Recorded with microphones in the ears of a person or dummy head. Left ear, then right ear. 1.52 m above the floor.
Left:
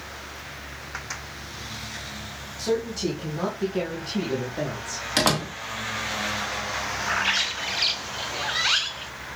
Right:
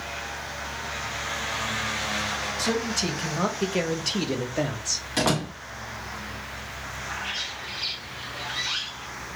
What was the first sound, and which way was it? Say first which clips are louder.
A man speaking: left 3 dB; 30° right (ahead or behind).